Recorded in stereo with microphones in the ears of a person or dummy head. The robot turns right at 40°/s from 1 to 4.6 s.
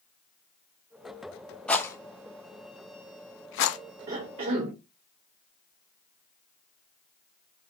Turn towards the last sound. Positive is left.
turn(degrees=-50)  # may be behind; listen again after turning